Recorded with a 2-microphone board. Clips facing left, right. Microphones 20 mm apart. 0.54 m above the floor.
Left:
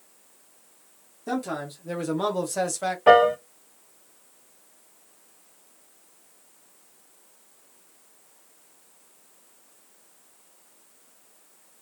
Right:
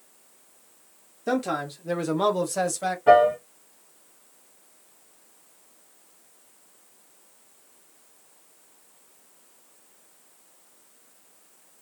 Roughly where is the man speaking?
Right.